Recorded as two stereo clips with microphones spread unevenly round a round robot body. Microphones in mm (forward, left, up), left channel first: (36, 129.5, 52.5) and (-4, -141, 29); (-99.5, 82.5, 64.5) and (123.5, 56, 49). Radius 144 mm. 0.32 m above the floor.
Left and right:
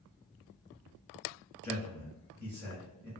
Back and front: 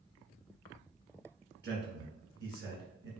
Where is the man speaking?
10° left, 1.5 m.